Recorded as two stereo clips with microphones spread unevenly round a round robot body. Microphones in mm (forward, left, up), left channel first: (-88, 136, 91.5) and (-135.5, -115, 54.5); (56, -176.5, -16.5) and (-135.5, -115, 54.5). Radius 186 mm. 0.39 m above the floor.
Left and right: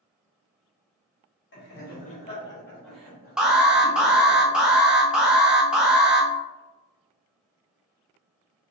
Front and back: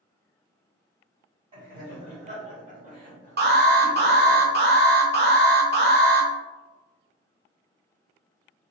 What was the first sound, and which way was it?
Laughter, 80° left.